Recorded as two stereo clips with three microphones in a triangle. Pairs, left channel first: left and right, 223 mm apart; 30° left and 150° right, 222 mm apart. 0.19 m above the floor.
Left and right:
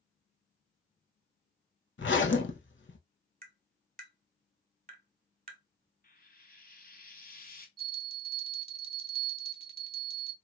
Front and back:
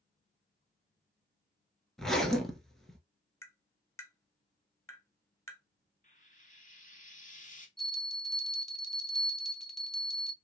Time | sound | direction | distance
2.0 | a zipper | 120° left | 0.6 m
3.4 | tapping | 50° right | 0.9 m
6.0 | frying | 65° left | 0.6 m
7.8 | a bell | 60° right | 0.6 m